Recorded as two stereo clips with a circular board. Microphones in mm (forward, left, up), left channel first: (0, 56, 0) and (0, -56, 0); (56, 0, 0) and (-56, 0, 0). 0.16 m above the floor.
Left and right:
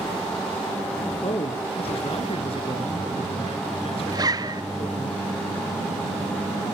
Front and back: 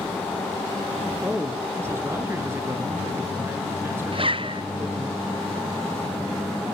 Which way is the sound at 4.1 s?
145° right.